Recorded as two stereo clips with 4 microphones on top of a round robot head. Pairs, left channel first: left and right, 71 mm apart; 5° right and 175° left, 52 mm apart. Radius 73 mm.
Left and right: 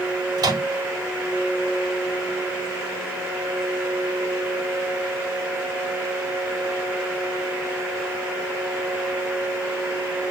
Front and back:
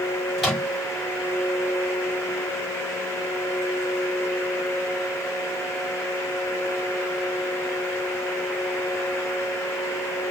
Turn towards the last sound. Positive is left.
turn(degrees=-95)